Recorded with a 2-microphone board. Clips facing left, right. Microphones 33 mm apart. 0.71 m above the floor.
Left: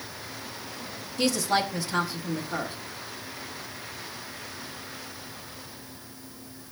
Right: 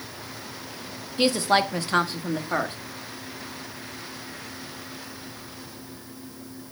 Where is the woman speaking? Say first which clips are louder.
Right 4 dB; 35° right (ahead or behind), 0.9 m; by 2.8 s 55° right (ahead or behind), 1.3 m.